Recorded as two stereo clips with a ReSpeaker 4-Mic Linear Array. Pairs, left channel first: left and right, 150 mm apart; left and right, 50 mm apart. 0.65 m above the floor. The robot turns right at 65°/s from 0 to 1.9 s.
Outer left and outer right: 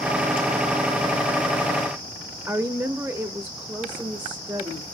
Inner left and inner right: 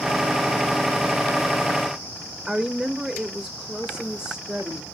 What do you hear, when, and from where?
2.5 s a woman speaking: 10° right (ahead or behind), 0.7 m